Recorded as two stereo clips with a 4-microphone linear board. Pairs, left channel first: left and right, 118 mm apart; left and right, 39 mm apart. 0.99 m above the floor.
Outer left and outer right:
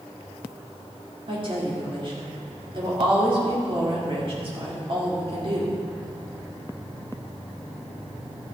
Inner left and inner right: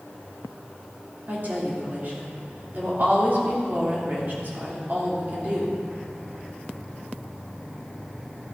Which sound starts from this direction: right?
A woman speaking, at 1.3 s.